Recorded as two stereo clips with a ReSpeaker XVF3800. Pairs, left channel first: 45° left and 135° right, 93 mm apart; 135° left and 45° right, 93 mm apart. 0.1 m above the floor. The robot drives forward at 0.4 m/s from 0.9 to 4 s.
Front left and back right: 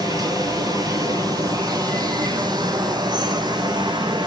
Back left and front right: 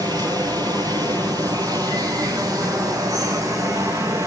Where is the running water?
90° right, 7 m; by 4.3 s 100° right, 7 m.